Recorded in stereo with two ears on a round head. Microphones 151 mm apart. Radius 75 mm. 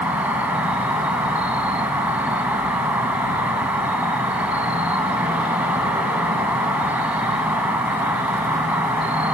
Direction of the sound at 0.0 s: 10° right (ahead or behind).